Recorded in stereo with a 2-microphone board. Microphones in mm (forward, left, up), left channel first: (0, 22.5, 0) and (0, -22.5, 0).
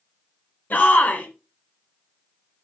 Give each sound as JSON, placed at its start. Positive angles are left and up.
{"t": 0.7, "sound": "a shout", "side_deg": 40, "distance_m": 2.0}